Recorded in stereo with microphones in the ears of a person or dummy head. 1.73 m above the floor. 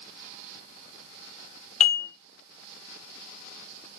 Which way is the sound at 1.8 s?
45° left (ahead or behind).